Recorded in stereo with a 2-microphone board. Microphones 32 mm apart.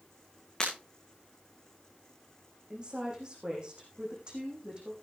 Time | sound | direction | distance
0.6 | breaking glass | 15° left (ahead or behind) | 8.5 m
2.7 | a woman speaking | 30° right (ahead or behind) | 6 m